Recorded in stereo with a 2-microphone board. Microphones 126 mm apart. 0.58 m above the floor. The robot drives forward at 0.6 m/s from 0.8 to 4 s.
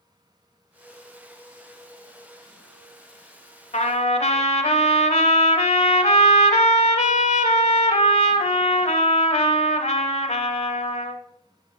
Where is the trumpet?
70° left (ahead or behind), 0.7 m; by 11.2 s 65° left (ahead or behind), 0.8 m.